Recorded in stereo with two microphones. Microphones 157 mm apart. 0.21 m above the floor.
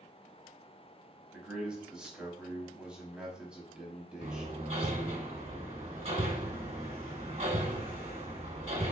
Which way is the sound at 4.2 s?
45° right (ahead or behind).